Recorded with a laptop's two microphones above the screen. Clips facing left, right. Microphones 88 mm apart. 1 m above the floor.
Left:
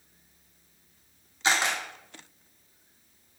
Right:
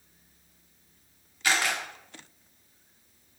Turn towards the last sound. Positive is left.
turn(degrees=25)  # may be behind; listen again after turning